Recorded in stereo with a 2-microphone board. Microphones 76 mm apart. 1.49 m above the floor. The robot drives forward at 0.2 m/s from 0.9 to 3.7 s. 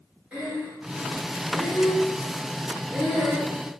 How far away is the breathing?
About 5 m.